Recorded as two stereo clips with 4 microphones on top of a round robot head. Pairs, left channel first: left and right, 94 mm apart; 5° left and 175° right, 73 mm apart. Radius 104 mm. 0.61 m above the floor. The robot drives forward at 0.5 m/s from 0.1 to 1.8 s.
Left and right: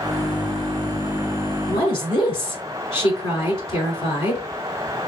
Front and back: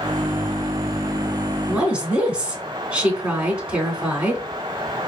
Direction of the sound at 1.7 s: 110° left.